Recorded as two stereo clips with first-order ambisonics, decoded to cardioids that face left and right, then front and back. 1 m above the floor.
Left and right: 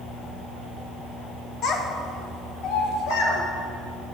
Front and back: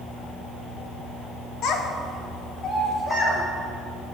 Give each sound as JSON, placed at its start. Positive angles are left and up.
{"t": 1.6, "sound": "a child speaking", "azimuth_deg": 40, "distance_m": 1.2}